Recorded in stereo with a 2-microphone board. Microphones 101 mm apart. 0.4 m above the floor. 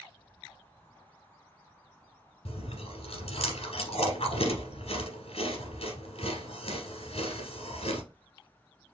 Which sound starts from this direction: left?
Chewing, at 2.5 s.